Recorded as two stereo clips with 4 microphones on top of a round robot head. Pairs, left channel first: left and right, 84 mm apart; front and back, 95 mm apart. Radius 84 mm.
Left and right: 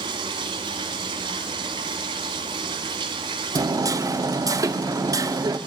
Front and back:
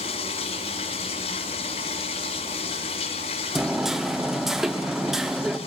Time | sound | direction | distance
0.0 | running water | 40° right | 1.2 m
3.5 | hammering | 95° right | 1.3 m